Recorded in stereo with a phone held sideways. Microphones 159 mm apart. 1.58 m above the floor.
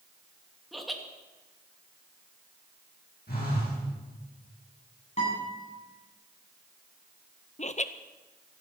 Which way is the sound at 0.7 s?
Centre (ahead or behind).